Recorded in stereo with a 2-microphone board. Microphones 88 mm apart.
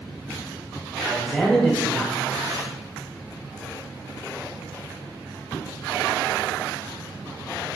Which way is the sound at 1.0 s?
5° left (ahead or behind).